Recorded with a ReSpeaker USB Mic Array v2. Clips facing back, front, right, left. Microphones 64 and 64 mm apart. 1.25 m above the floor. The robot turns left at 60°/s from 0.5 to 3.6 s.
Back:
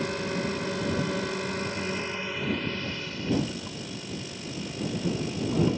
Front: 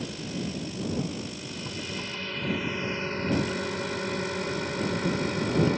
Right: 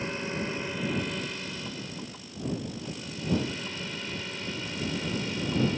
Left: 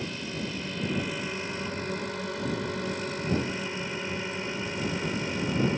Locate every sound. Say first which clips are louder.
0.0 s a drone: back 5 dB, right 2 dB; 155° right; by 5.8 s 25° left